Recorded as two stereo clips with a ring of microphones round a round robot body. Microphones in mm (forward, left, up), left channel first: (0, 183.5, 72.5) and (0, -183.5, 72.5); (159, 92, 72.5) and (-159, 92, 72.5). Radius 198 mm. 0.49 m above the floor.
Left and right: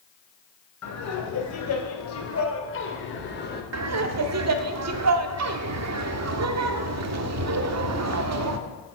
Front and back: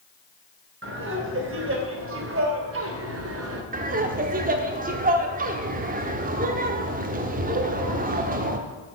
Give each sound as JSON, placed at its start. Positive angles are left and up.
{"t": 0.8, "sound": "laughter", "azimuth_deg": 130, "distance_m": 3.5}
{"t": 3.7, "sound": "laughter", "azimuth_deg": -120, "distance_m": 1.1}